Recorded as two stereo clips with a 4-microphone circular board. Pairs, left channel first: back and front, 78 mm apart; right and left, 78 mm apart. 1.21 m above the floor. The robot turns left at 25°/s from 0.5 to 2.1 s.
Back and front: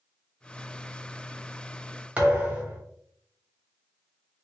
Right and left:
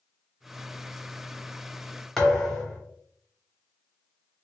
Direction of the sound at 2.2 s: 15° right.